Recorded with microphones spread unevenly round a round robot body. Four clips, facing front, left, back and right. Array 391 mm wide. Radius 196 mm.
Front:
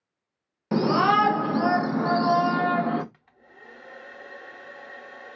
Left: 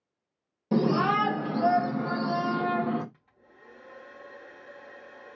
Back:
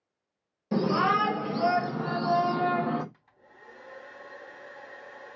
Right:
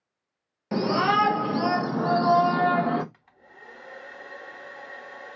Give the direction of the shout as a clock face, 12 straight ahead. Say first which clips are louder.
Right 1 dB, front 4 dB; 11 o'clock.